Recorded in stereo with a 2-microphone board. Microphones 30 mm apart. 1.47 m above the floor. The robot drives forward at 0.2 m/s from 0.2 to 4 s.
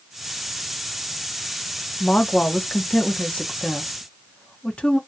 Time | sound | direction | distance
2.0 | a woman speaking | 55° left (ahead or behind) | 0.7 m